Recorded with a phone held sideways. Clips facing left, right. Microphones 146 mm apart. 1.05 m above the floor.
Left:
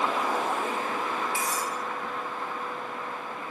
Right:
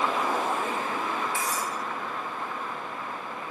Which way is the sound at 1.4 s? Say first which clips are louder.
Even; 10° left (ahead or behind).